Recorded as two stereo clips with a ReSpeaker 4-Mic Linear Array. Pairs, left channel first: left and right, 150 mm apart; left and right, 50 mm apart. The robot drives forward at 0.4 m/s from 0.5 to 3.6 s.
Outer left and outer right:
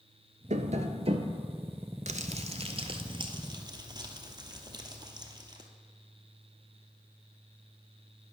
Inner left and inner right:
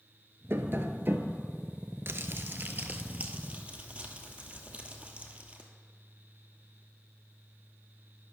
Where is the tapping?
55° right (ahead or behind), 0.6 m; by 1.4 s 40° right (ahead or behind), 0.8 m.